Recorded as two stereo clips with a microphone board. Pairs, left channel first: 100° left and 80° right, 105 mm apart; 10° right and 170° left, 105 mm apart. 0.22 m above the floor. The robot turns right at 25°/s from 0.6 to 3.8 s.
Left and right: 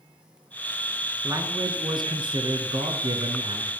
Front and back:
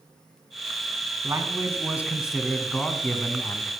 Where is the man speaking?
135° right, 2 m; by 3.7 s 70° right, 2 m.